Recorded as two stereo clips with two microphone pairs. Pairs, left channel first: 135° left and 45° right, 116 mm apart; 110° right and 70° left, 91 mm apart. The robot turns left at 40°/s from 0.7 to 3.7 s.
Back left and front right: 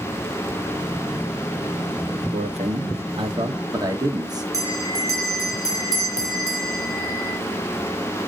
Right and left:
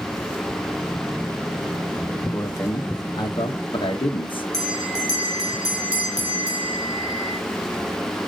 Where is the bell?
15° left, 3.5 m.